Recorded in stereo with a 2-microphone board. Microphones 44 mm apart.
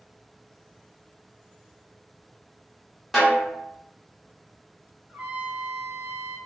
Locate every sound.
3.1 s a snare drum: centre (ahead or behind), 1.1 m
5.1 s a trumpet: 20° right (ahead or behind), 1.2 m